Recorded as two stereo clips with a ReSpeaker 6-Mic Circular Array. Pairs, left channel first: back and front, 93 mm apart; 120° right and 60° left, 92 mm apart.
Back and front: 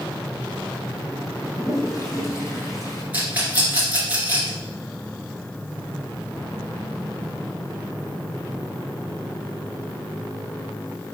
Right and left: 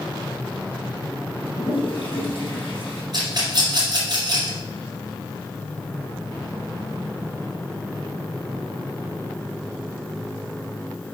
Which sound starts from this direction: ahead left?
A rattle, at 3.1 s.